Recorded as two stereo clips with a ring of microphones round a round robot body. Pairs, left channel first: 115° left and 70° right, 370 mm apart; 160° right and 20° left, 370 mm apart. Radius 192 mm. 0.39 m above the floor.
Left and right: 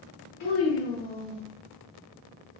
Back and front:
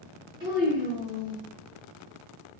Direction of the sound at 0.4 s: 95° left.